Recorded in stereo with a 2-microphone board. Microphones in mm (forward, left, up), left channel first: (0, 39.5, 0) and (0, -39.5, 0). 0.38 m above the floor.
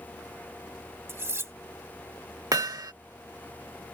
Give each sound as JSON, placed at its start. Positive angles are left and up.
{"t": 1.1, "sound": "cutlery clinking", "side_deg": -35}
{"t": 2.5, "sound": "hammering", "side_deg": -50}